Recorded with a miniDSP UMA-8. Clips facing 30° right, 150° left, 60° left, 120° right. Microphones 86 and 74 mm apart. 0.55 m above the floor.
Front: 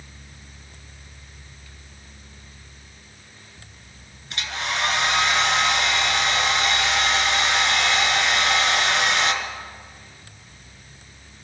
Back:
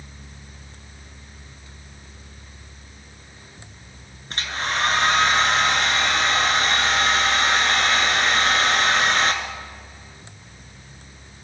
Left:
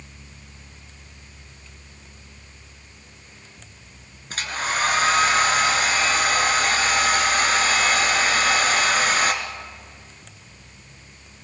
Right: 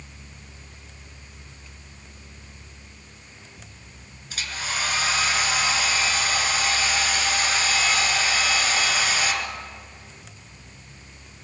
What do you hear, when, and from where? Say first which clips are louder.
4.3 s a hair dryer: back 2 dB, left 5 dB; 100° left, 1.7 m